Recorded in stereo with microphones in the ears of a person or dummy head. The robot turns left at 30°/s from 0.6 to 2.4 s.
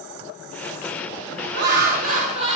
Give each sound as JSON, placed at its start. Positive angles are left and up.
{"t": 1.5, "sound": "laughter", "side_deg": -65, "distance_m": 3.0}